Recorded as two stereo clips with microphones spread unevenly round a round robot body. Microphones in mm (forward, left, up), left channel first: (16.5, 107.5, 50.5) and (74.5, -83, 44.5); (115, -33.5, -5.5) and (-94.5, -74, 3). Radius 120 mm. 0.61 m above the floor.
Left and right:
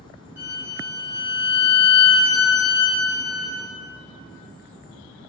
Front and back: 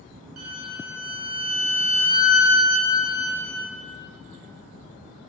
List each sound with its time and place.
0.4 s a violin: 150° right, 0.5 m